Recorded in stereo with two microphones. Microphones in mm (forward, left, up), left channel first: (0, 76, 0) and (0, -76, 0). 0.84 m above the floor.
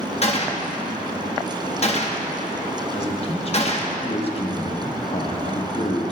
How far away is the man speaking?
About 1.0 m.